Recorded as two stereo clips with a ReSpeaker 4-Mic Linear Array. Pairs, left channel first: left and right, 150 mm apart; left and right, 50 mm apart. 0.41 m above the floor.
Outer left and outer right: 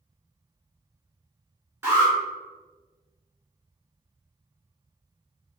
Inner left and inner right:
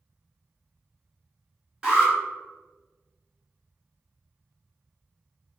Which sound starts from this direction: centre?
An alarm, at 1.8 s.